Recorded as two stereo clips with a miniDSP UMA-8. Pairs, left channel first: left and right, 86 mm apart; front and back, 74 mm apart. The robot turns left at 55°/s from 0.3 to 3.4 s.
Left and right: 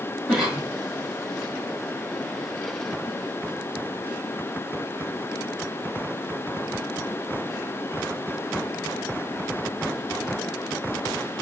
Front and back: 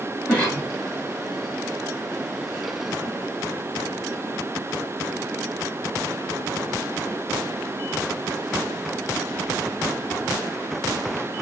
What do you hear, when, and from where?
0.3 s a cough: straight ahead, 1.6 m; by 0.7 s 20° right, 1.6 m